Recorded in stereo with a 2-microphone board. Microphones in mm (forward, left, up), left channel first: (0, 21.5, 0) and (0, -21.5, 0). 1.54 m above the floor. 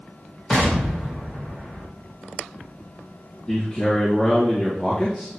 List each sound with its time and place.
0.5 s an explosion: 5° left (ahead or behind), 1.8 m
3.5 s a man speaking: 20° left (ahead or behind), 1.9 m